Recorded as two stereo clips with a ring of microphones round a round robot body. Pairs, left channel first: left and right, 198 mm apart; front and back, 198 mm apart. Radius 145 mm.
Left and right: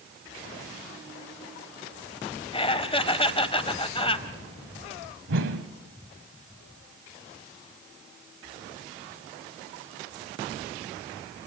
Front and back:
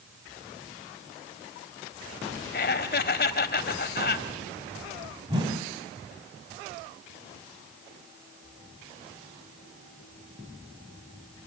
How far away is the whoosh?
About 2 m.